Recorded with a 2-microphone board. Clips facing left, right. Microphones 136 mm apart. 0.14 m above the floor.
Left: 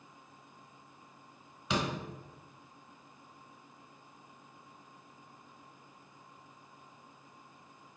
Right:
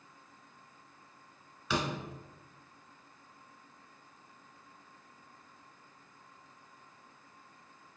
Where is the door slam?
20° left (ahead or behind), 1.0 m.